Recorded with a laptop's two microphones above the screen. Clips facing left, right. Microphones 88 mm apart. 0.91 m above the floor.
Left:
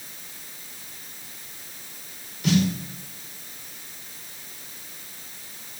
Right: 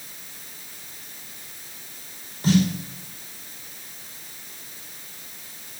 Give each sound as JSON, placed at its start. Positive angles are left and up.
{"t": 2.4, "sound": "a snare drum", "side_deg": -35, "distance_m": 5.5}